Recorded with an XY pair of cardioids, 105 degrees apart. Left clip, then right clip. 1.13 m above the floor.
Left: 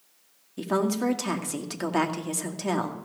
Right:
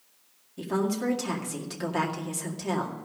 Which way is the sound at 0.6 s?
30° left.